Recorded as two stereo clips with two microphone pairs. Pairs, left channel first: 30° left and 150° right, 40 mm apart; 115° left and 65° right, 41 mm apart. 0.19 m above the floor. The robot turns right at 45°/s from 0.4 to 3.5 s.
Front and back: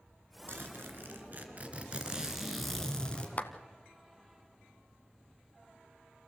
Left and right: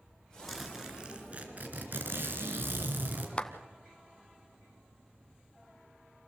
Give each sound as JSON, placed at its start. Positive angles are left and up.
{"t": 0.5, "sound": "a zipper", "azimuth_deg": -155, "distance_m": 2.5}
{"t": 3.4, "sound": "a clap", "azimuth_deg": 60, "distance_m": 1.2}